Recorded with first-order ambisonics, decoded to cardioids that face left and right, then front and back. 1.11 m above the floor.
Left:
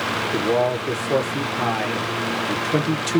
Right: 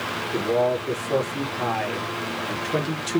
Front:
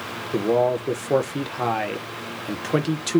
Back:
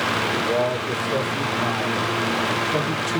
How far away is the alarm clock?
No alarm clock in this recording.